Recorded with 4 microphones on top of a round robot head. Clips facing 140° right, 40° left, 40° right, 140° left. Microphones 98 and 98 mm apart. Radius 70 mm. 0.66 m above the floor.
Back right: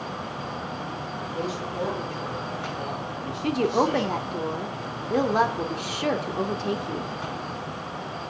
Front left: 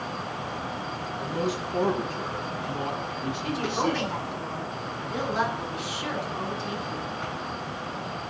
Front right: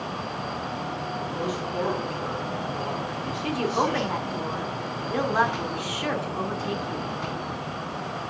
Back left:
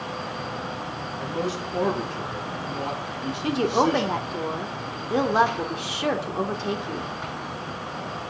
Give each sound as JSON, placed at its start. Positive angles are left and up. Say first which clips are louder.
{"t": 1.2, "sound": "a man speaking", "louder": "front left 2 dB, back left 3 dB", "azimuth_deg": 80, "distance_m": 8.0}
{"t": 3.4, "sound": "a woman speaking", "louder": "back right 6 dB, back left 4 dB", "azimuth_deg": -160, "distance_m": 2.0}